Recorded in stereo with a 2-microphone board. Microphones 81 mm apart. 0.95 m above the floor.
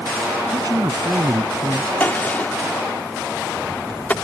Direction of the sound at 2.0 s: 20° left (ahead or behind).